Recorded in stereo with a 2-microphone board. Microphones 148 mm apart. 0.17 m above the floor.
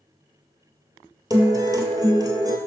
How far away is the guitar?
About 0.8 m.